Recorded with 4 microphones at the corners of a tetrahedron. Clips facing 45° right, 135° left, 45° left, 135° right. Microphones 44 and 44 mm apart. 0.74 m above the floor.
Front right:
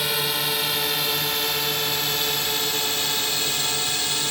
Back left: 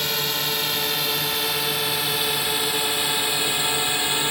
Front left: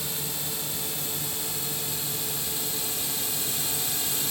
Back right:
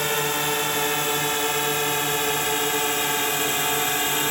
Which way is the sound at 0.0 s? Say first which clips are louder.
Front right 1 dB, back right 13 dB; 130° right.